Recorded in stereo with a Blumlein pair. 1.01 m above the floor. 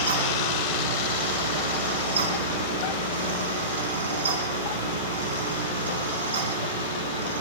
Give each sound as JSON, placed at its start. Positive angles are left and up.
{"t": 0.0, "sound": "a fan", "azimuth_deg": -65, "distance_m": 3.0}